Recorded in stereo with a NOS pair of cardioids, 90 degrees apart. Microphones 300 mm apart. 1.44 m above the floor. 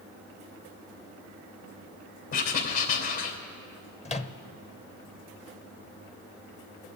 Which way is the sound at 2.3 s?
70° left.